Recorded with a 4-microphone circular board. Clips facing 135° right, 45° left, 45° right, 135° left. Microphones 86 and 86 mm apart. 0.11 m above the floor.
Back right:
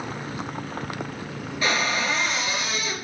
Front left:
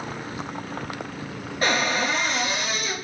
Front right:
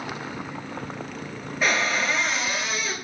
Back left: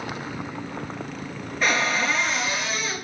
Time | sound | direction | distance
1.6 | a cupboard door | 40° left | 0.5 m